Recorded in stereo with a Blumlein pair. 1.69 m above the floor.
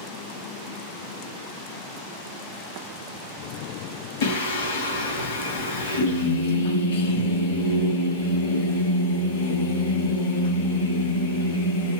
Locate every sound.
4.2 s singing: 60° left, 1.1 m